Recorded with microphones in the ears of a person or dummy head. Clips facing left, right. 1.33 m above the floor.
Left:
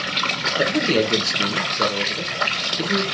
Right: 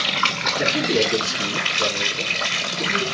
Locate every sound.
0.6 s a man speaking: 60° left (ahead or behind), 1.3 m